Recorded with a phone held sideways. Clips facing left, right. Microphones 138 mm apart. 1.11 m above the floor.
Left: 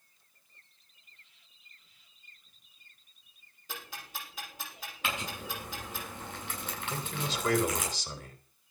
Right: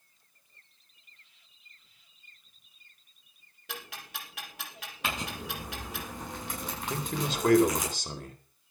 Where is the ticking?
70° right (ahead or behind), 5.5 m.